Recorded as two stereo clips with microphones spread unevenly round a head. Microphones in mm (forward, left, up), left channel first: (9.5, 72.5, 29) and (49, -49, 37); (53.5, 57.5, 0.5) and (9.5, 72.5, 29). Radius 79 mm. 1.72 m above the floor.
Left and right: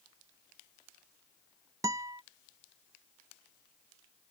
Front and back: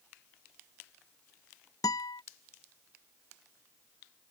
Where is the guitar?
15° right.